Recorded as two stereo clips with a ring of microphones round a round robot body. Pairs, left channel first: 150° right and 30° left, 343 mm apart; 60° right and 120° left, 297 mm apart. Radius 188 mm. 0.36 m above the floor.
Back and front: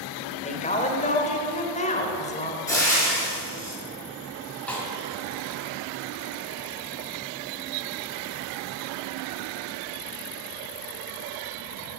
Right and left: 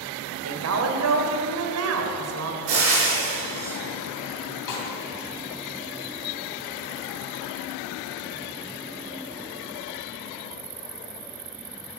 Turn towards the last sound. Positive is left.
turn(degrees=-65)